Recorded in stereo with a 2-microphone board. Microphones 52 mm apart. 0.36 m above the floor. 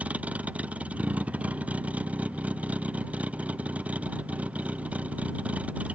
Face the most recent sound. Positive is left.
turn(degrees=-30)  # may be behind; listen again after turning